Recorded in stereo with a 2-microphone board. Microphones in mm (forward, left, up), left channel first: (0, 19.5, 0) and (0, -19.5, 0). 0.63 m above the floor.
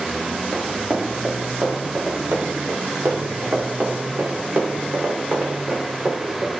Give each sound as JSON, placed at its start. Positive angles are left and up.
{"t": 0.5, "sound": "running footsteps", "side_deg": -75, "distance_m": 3.5}